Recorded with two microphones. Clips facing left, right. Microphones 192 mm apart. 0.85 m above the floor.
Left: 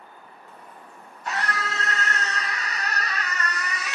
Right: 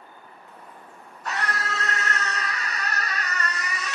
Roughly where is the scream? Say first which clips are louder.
Even; right.